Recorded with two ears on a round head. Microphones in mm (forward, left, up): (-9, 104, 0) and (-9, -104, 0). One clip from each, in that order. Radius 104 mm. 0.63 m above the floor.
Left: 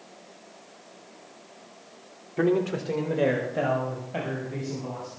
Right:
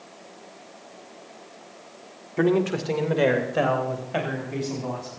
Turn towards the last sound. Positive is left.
turn(degrees=-45)  # may be behind; listen again after turning